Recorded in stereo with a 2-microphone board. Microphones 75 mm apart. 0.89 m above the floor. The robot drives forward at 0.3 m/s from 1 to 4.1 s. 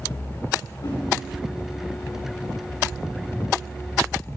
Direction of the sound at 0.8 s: 80° left.